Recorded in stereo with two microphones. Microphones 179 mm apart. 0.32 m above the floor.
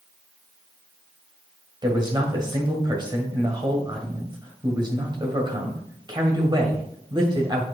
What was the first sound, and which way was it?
A man speaking, 25° right (ahead or behind).